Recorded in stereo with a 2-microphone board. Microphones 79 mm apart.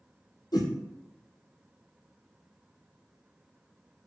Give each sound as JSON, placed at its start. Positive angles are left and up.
{"t": 0.5, "sound": "a whoosh", "side_deg": 60, "distance_m": 0.7}